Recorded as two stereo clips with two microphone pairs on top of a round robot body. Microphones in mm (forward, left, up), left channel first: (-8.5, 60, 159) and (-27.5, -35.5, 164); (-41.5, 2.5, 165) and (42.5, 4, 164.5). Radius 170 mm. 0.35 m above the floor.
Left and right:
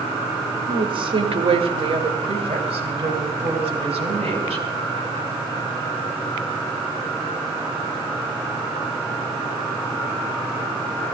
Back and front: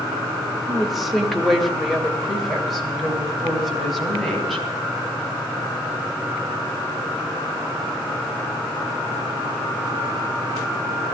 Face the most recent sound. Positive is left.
turn(degrees=-90)